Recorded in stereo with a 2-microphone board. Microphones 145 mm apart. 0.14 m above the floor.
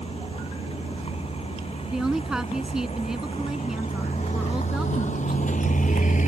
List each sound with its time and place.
0.0 s a vehicle: 40° left (ahead or behind); by 6.3 s 60° left (ahead or behind)
1.9 s a woman speaking: 5° right (ahead or behind)